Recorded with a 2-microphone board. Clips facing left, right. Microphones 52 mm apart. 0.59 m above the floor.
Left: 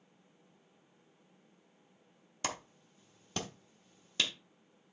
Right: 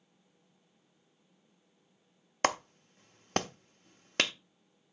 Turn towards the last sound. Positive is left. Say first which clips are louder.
# right 10 dB
turn(degrees=-55)  # may be behind; listen again after turning